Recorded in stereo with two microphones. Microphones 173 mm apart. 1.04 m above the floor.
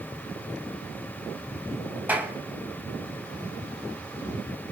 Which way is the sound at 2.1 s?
10° right (ahead or behind).